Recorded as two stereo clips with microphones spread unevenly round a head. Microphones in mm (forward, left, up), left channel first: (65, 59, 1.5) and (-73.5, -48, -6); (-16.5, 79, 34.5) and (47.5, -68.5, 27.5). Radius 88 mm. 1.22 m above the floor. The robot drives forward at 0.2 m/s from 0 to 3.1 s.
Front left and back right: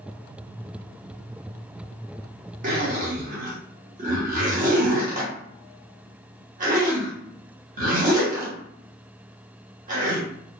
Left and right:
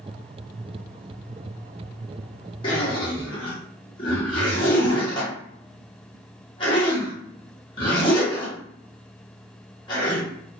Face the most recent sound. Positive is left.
turn(degrees=175)